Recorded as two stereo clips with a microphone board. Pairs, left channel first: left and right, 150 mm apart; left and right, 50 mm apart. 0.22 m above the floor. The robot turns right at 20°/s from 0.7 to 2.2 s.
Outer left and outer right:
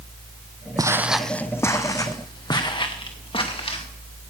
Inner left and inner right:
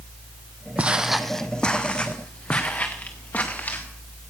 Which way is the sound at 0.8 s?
25° right (ahead or behind).